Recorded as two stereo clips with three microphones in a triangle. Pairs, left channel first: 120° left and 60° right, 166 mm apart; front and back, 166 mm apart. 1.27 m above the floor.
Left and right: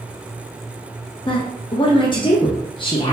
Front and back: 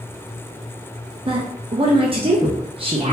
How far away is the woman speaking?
About 0.6 m.